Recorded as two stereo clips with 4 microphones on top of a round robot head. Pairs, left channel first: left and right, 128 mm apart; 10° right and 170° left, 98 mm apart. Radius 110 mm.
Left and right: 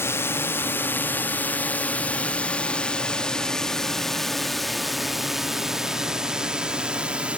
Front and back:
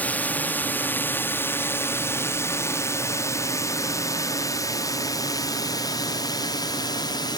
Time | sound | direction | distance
0.0 | a drone | 45° left | ?